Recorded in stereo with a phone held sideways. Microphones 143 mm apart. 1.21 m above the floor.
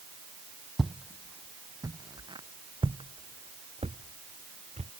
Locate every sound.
0.8 s footsteps: 5° right (ahead or behind); by 4.9 s 55° right (ahead or behind)